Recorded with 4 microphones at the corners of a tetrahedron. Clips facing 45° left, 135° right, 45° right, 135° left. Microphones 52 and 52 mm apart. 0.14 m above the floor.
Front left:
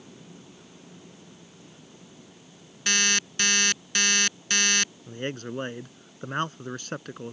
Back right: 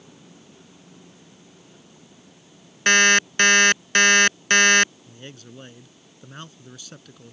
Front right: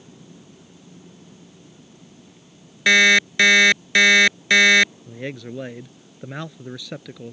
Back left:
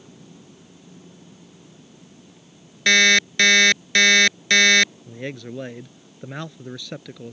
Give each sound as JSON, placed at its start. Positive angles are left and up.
{"t": 2.9, "sound": "an alarm clock", "azimuth_deg": -120}
{"t": 5.1, "sound": "a man speaking", "azimuth_deg": 40}